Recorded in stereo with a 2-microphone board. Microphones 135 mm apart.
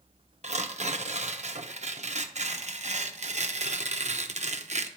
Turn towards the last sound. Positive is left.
turn(degrees=-55)  # may be behind; listen again after turning